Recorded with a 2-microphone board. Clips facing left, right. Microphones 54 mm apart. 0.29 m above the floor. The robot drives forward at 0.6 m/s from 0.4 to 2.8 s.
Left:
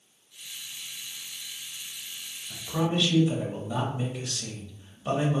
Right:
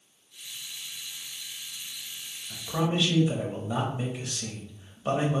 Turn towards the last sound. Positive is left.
turn(degrees=-15)  # may be behind; listen again after turning